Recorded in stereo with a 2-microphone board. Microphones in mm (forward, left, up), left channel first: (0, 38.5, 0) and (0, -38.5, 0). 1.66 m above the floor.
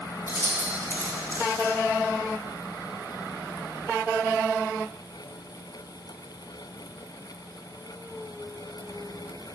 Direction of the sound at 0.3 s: 35° right (ahead or behind).